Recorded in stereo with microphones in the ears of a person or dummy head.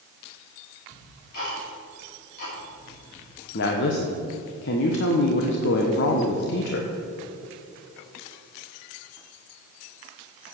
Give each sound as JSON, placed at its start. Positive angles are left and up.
{"t": 0.9, "sound": "ticking", "side_deg": 50, "distance_m": 3.5}
{"t": 3.5, "sound": "a woman speaking", "side_deg": 65, "distance_m": 1.1}